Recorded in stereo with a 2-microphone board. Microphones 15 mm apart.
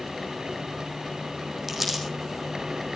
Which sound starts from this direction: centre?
Crumpling, at 1.7 s.